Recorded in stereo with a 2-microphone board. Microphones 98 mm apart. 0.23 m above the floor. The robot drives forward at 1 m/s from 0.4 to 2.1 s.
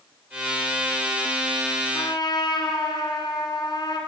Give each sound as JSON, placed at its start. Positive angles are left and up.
{"t": 1.9, "sound": "a trumpet", "side_deg": 50, "distance_m": 3.0}